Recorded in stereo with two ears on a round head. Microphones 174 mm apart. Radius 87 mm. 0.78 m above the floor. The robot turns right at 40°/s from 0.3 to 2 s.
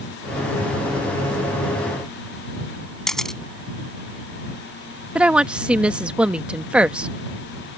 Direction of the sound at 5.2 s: 5° right (ahead or behind).